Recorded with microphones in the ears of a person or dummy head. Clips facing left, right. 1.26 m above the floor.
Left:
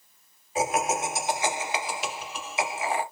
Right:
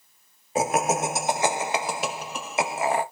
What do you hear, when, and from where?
0.6 s laughter: 45° right (ahead or behind), 0.7 m